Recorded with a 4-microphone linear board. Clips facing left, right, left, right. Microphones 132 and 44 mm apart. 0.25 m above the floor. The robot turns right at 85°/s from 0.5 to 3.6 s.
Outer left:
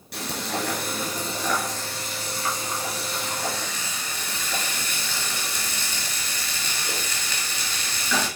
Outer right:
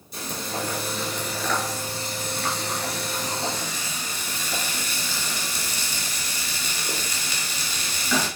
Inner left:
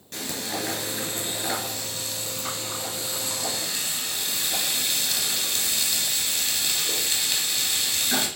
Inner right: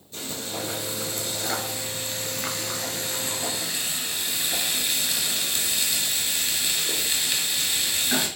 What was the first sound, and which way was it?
Frying, 85° left.